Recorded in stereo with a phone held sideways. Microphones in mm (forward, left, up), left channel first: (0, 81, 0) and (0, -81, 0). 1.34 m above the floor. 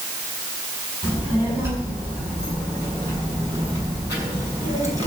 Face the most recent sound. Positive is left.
turn(degrees=-20)  # may be behind; listen again after turning